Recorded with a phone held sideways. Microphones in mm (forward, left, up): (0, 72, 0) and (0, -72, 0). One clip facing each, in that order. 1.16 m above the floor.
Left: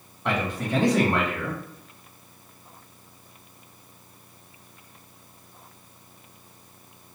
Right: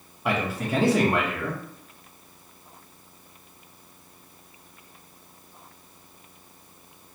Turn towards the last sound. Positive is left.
turn(degrees=-5)  # may be behind; listen again after turning